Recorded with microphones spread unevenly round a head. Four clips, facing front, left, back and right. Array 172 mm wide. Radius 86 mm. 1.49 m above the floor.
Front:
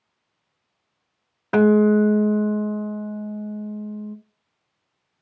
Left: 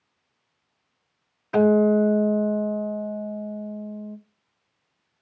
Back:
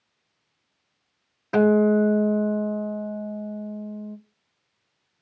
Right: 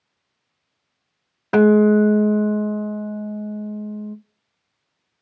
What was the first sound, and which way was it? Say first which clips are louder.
A guitar: right 4 dB, front 2 dB; 70° right.